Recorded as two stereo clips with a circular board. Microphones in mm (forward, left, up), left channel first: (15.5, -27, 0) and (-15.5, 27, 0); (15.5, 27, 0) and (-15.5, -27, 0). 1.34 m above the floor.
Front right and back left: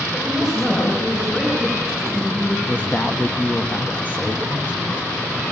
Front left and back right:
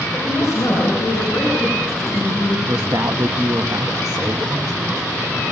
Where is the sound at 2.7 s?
125° right, 1.2 m.